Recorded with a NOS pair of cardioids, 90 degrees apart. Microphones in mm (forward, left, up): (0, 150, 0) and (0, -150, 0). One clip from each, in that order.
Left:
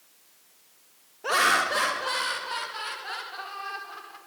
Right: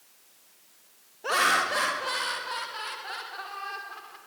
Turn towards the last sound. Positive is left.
turn(degrees=15)